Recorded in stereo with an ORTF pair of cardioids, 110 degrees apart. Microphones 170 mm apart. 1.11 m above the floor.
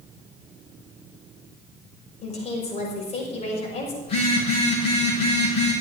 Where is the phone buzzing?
35° left, 6.5 m.